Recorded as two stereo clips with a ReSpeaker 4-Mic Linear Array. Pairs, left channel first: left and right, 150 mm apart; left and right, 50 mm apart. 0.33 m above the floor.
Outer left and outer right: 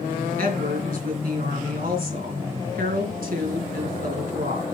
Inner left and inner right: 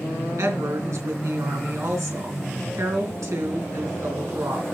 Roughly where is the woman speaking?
Right.